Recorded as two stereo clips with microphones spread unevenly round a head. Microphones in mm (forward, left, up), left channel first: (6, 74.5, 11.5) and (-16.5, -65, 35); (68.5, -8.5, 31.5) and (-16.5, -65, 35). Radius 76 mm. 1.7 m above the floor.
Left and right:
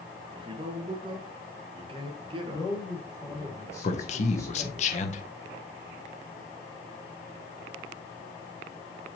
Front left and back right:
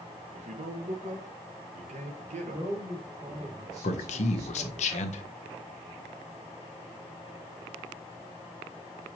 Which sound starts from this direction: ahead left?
A man speaking, at 3.8 s.